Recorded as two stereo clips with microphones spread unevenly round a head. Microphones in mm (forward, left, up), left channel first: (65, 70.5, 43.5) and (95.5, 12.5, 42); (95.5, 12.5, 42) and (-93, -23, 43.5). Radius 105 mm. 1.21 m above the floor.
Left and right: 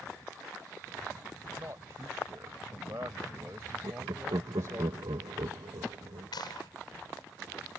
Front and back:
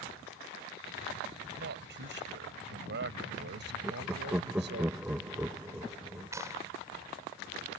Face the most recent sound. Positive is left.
turn(degrees=115)